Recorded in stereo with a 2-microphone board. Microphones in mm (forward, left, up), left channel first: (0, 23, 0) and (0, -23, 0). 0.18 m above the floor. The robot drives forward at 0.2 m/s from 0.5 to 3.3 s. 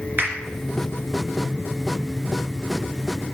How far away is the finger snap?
About 3 m.